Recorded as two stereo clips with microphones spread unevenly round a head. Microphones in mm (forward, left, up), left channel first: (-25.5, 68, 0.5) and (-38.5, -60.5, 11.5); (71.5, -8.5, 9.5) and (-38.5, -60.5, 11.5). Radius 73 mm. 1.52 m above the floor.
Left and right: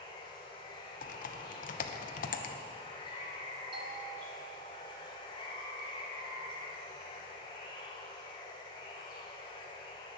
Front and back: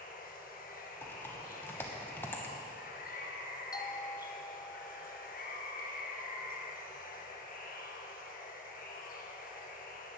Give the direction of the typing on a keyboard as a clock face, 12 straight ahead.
9 o'clock.